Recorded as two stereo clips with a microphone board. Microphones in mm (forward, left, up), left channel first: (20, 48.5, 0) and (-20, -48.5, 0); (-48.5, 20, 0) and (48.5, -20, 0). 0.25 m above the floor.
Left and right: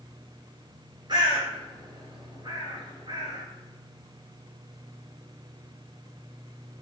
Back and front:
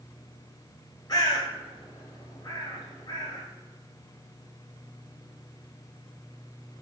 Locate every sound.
1.1 s a bird: 155° right, 1.1 m